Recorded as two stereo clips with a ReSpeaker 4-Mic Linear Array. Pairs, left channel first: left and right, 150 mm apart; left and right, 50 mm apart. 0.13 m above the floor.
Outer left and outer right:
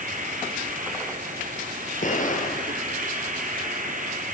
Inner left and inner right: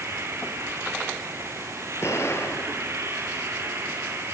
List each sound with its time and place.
0.0 s an insect: 60° right (ahead or behind), 2.5 m
2.0 s an explosion: 60° left (ahead or behind), 2.5 m